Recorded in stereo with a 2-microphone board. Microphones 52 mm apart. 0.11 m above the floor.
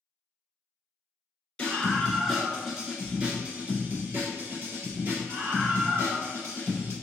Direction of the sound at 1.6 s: 20° left (ahead or behind).